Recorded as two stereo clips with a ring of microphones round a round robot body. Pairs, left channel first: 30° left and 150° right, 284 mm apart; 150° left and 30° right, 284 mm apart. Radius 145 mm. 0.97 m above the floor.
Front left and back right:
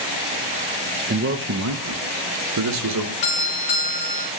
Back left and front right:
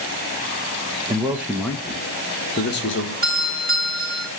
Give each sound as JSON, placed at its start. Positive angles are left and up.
{"t": 1.1, "sound": "a man speaking", "azimuth_deg": -100, "distance_m": 0.9}
{"t": 3.2, "sound": "a doorbell", "azimuth_deg": 30, "distance_m": 3.5}